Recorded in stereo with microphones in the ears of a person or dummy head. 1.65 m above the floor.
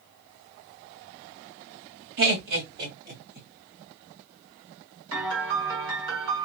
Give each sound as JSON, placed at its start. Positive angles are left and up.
{"t": 2.2, "sound": "laughter", "side_deg": -80, "distance_m": 1.5}
{"t": 5.1, "sound": "a piano", "side_deg": -70, "distance_m": 1.9}